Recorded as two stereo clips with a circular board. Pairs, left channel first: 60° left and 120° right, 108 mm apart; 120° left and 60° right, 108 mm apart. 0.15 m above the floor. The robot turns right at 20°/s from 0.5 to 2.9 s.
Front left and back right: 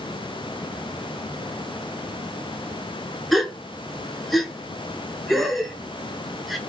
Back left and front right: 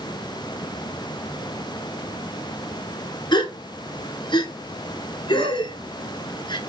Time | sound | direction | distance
3.3 | a gasp | 150° left | 0.6 m